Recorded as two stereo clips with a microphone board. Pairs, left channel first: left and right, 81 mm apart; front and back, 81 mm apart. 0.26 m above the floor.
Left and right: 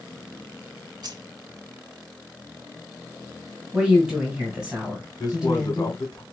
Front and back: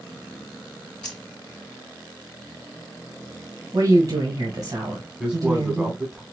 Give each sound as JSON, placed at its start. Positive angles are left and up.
{"t": 1.0, "sound": "keys jangling", "azimuth_deg": -80, "distance_m": 1.5}
{"t": 3.7, "sound": "a woman speaking", "azimuth_deg": -165, "distance_m": 2.0}
{"t": 5.2, "sound": "a man speaking", "azimuth_deg": 105, "distance_m": 1.5}